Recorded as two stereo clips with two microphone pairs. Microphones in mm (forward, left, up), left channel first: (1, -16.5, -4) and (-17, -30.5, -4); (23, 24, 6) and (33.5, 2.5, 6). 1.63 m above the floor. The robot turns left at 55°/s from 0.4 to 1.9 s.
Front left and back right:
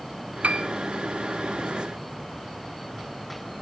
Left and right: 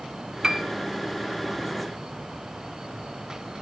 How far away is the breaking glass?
No breaking glass in this recording.